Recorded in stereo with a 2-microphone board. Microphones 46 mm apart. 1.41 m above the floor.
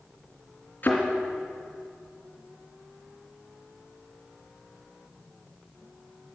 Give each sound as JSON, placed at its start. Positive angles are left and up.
{"t": 0.8, "sound": "a thud", "side_deg": 45, "distance_m": 3.0}